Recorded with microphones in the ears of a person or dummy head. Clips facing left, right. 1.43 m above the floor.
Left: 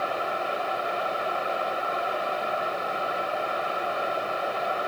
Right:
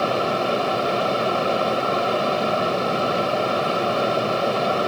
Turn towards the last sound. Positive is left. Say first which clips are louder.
# right 8 dB
turn(degrees=-65)  # may be behind; listen again after turning